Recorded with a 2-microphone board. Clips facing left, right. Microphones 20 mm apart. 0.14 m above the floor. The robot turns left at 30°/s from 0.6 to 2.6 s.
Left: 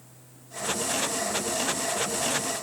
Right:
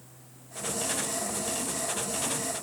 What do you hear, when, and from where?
Only background noise.